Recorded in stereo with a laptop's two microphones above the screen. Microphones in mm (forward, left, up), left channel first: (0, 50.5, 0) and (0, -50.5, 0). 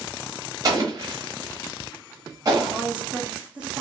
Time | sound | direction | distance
0.6 | an explosion | 40° right (ahead or behind) | 1.1 m
2.7 | a woman speaking | 10° right (ahead or behind) | 1.2 m